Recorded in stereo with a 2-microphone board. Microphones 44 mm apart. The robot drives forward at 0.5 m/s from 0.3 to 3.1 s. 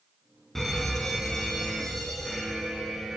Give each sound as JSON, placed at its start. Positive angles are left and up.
{"t": 0.6, "sound": "a fire alarm", "side_deg": 5, "distance_m": 4.0}